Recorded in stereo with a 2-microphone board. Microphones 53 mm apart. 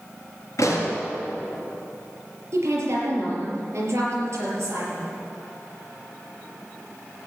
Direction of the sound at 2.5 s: 55° right (ahead or behind).